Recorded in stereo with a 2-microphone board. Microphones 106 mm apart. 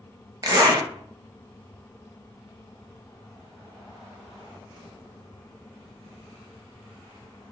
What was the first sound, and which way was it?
A zipper, 40° right (ahead or behind).